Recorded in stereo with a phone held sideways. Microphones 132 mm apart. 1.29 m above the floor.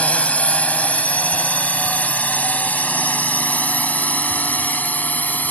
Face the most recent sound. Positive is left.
turn(degrees=10)  # may be behind; listen again after turning